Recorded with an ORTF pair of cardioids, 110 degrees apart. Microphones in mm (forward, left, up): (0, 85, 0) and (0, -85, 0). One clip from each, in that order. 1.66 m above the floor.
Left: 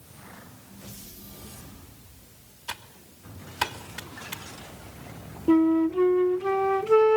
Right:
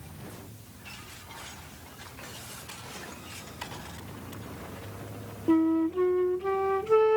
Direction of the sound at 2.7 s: 70° left.